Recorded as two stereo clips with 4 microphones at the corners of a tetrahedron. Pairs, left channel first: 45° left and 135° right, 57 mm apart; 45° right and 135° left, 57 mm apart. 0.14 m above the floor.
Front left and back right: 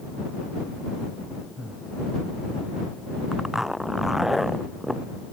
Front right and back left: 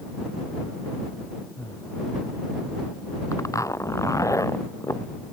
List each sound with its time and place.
1.6 s breathing: 70° right
3.3 s a zipper: 50° right